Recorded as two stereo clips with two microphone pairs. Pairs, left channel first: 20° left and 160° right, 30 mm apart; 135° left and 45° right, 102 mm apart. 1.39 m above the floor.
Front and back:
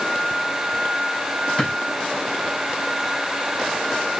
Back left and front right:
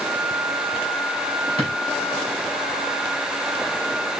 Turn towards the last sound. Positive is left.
turn(degrees=-65)